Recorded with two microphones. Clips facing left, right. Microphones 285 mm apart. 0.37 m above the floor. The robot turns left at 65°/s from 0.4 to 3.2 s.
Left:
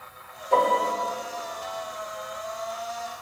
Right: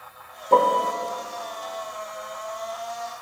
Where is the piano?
55° right (ahead or behind), 0.7 m; by 0.9 s 40° right (ahead or behind), 0.7 m.